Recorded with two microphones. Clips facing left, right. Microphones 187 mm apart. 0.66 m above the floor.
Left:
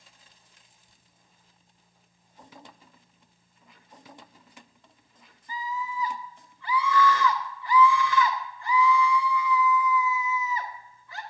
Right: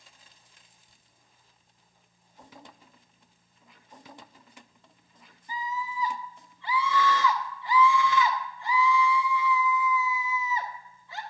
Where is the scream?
25° right (ahead or behind), 0.8 m.